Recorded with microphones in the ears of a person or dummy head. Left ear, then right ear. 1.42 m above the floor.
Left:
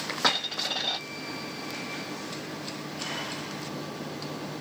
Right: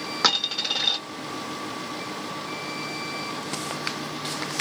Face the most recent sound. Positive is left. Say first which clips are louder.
# right 4 dB
turn(degrees=-45)  # may be behind; listen again after turning